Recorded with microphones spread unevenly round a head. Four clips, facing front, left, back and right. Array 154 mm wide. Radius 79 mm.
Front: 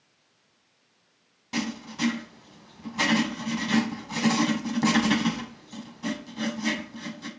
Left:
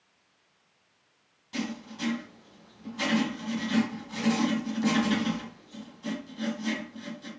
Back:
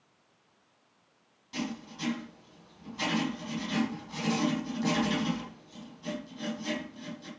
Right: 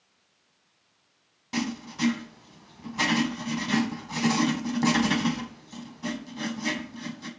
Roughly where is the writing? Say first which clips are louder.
Right 4 dB, front 5 dB; ahead right.